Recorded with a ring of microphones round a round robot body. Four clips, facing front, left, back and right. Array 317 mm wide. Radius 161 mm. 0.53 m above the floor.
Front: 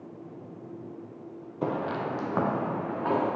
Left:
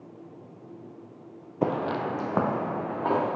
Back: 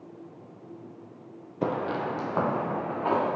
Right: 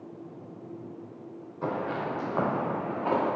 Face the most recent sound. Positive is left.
turn(degrees=70)